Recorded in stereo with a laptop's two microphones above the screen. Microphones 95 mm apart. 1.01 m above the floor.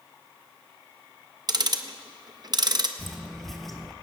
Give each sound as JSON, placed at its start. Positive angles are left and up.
{"t": 1.5, "sound": "ticking", "side_deg": -45, "distance_m": 0.6}
{"t": 3.0, "sound": "footsteps", "side_deg": 0, "distance_m": 1.1}